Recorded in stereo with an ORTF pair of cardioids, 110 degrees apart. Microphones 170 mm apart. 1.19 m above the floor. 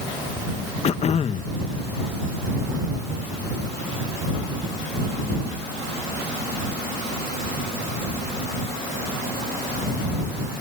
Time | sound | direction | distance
0.8 | throat clearing | 35° left | ?